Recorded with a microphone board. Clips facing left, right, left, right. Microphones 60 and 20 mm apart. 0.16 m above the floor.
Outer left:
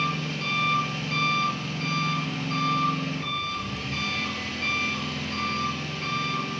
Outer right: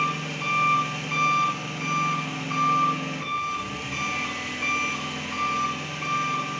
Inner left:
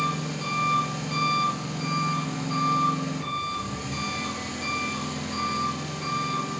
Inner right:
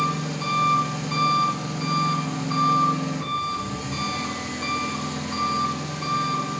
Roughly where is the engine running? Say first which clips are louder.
Outer right 2 dB, inner right 3 dB; centre.